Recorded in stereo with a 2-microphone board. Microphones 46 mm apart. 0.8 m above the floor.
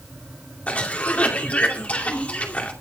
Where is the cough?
30° left (ahead or behind), 2 m.